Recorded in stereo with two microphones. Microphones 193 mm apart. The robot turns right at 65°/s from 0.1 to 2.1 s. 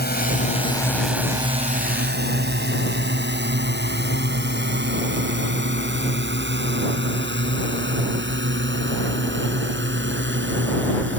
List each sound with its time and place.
0.0 s a drone: 55° left (ahead or behind); by 11.2 s 75° right (ahead or behind)